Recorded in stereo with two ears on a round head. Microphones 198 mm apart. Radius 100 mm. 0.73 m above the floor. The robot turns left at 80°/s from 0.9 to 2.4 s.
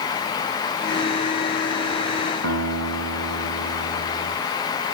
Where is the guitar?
60° right (ahead or behind), 1.4 m.